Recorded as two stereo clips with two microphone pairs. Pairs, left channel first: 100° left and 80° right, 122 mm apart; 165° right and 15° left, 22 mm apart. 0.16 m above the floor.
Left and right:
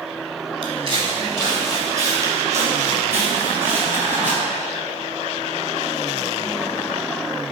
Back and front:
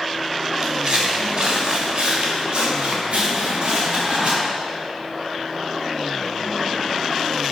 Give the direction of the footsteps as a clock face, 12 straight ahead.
1 o'clock.